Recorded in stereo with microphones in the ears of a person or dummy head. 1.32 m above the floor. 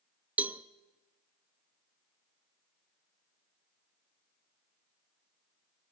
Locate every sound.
0.4 s a cowbell: 15° right (ahead or behind), 0.5 m